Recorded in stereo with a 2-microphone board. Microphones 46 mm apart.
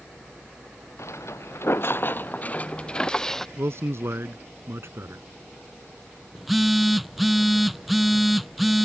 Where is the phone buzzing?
5° right (ahead or behind).